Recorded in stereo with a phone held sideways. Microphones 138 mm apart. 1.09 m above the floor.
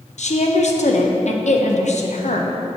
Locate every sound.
0.2 s a woman speaking: 65° left (ahead or behind), 0.8 m